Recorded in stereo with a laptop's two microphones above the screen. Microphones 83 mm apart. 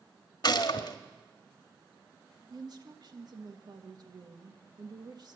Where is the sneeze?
I don't hear a sneeze.